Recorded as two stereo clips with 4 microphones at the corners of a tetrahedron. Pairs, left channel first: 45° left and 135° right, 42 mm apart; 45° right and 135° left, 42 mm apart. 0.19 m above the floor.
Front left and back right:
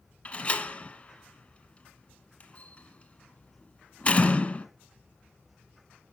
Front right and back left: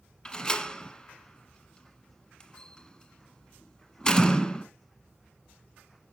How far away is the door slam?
About 1.3 m.